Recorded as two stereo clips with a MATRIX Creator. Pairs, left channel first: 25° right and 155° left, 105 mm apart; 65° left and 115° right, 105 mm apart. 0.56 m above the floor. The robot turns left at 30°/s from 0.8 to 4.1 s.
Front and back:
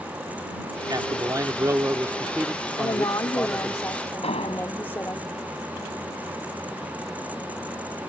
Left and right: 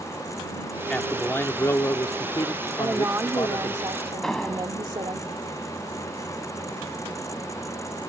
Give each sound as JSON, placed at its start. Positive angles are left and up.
{"t": 0.9, "sound": "a man speaking", "azimuth_deg": 140}
{"t": 2.8, "sound": "a woman speaking", "azimuth_deg": -45}
{"t": 4.2, "sound": "an explosion", "azimuth_deg": -20}